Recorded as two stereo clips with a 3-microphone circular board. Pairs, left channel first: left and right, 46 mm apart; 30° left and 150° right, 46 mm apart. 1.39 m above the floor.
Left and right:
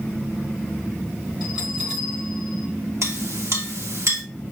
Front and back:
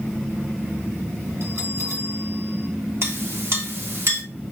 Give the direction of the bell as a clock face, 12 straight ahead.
5 o'clock.